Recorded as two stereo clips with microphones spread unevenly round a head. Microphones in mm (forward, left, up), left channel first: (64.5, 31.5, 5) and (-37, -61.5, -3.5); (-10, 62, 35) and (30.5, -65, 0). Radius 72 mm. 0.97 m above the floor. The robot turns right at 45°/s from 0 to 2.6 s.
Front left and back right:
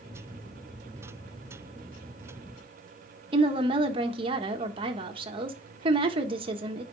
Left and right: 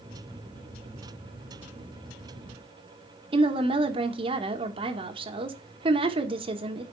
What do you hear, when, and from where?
3.3 s a woman speaking: 95° right, 1.3 m